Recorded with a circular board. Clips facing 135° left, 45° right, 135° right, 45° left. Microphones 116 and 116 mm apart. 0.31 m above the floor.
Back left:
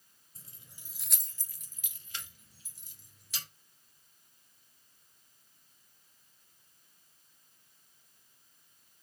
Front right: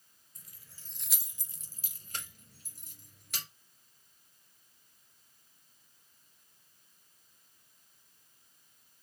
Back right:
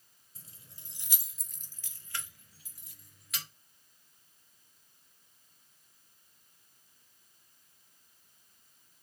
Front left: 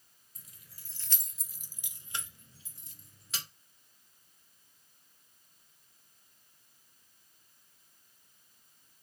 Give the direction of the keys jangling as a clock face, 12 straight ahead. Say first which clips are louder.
Back left 3 dB, back right 3 dB; 6 o'clock.